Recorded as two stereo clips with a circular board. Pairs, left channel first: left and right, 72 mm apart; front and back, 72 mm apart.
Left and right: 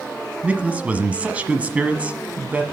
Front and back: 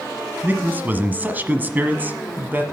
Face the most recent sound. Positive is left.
turn(degrees=-145)